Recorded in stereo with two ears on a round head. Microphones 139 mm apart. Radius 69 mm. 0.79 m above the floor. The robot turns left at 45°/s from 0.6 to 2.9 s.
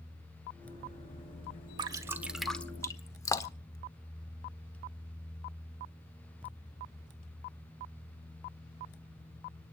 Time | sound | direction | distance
1.8 | dripping | 30° right (ahead or behind) | 1.2 m